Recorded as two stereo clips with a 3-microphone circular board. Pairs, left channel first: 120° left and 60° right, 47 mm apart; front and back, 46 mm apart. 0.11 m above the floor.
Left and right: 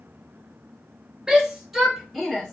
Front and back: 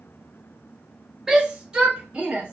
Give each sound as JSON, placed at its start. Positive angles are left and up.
{"t": 1.3, "sound": "a shout", "azimuth_deg": -120, "distance_m": 1.6}